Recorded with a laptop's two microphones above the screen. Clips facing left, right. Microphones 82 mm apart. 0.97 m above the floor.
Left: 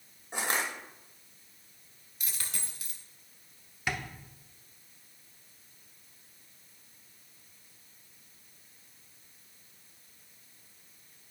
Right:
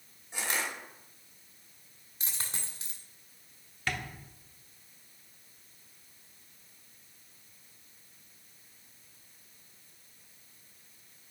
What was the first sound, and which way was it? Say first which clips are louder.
Crushing: left 3 dB; 45° left (ahead or behind).